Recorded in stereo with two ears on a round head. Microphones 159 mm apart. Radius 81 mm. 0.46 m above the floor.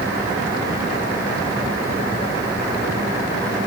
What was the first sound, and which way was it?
Only background noise.